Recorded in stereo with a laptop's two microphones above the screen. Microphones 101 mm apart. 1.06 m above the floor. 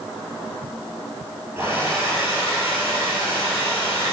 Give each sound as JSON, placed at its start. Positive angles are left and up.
{"t": 1.6, "sound": "a hair dryer", "side_deg": -25, "distance_m": 4.0}